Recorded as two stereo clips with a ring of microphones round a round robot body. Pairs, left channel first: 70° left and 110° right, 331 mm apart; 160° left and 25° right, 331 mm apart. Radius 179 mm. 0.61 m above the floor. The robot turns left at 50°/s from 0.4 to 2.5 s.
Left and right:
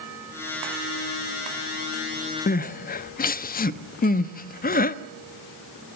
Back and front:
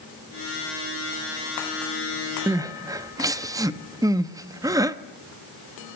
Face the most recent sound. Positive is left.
turn(degrees=45)